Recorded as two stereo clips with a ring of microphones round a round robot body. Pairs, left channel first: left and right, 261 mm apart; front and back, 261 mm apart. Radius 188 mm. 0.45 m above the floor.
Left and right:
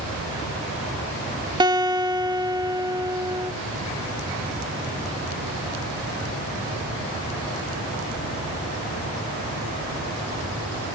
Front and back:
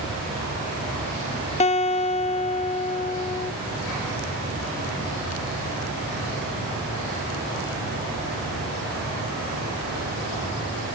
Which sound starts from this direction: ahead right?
A guitar, at 1.6 s.